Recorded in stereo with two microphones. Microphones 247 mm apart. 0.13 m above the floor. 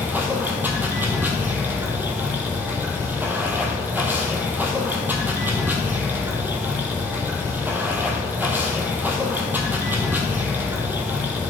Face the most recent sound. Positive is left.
turn(degrees=-5)  # may be behind; listen again after turning